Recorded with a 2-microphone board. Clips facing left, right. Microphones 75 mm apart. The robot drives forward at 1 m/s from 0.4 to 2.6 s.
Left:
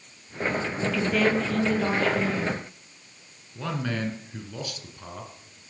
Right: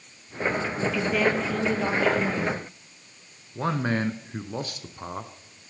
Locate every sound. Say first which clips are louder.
0.8 s a woman speaking: even; 10° right (ahead or behind), 2.5 m; by 2.6 s 5° right (ahead or behind), 4.5 m
3.5 s a man speaking: right 4 dB; 35° right (ahead or behind), 1.6 m